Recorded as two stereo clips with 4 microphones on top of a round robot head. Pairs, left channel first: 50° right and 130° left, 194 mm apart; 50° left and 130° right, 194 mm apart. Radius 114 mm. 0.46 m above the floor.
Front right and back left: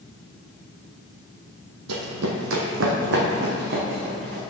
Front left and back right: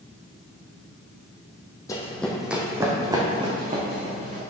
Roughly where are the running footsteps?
Behind left.